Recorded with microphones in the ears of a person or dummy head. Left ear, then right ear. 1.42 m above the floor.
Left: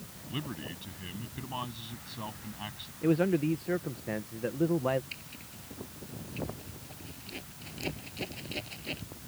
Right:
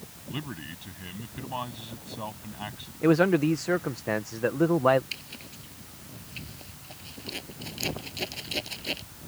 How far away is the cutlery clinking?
I don't hear cutlery clinking.